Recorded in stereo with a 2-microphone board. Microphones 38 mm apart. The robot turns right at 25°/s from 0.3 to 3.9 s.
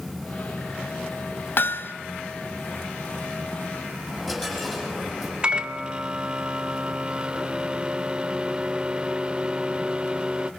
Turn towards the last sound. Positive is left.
turn(degrees=-25)  # may be behind; listen again after turning